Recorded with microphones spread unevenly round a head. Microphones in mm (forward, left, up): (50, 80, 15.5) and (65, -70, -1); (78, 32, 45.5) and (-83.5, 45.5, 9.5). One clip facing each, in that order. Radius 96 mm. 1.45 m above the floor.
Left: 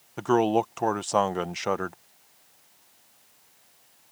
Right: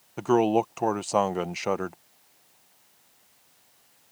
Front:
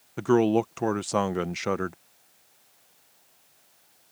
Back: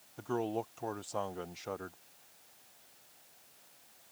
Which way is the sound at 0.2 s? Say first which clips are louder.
Right 1 dB, front 14 dB; straight ahead.